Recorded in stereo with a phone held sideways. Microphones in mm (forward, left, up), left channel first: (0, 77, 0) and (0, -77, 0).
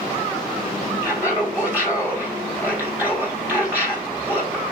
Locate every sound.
1.0 s laughter: 10° right (ahead or behind), 4 m